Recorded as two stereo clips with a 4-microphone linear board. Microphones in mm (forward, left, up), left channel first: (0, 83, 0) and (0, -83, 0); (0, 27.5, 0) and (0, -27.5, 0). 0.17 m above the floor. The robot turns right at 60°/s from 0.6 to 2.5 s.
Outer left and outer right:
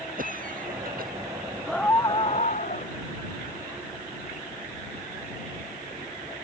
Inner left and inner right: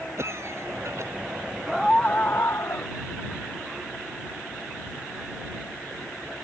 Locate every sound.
0.2 s a cough: 110° right; by 1.1 s 80° right
1.7 s a scream: straight ahead; by 2.9 s 50° left